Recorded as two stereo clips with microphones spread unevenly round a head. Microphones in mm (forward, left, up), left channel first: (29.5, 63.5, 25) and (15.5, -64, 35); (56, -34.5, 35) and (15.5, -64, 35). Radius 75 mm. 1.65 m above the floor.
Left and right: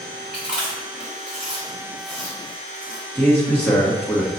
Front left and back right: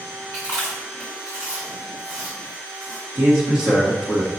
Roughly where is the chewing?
Behind.